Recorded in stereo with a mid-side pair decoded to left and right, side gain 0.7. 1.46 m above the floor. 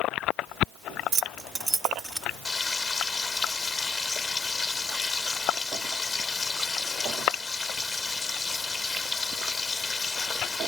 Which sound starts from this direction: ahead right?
Keys jangling, at 1.1 s.